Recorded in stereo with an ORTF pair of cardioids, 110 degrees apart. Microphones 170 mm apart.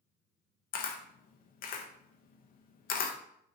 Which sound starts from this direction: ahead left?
A camera shutter, at 0.7 s.